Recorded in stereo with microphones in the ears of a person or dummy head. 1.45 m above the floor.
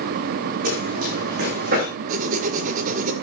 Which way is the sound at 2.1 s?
45° right (ahead or behind).